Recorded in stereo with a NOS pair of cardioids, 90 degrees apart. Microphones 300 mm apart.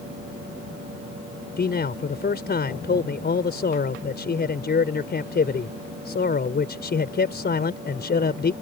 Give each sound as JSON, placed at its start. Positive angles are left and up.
{"t": 1.6, "sound": "a man speaking", "azimuth_deg": 35}